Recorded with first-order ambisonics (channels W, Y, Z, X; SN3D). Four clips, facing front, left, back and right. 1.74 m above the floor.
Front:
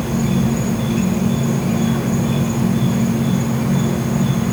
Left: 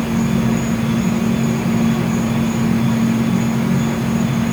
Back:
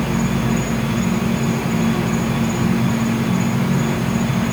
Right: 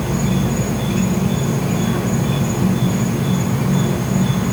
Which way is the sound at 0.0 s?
75° right.